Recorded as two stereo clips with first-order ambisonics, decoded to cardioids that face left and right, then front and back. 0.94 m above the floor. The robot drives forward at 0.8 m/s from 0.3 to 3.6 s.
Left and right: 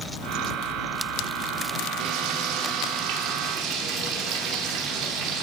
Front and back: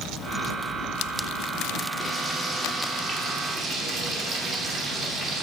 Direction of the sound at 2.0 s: 90° right.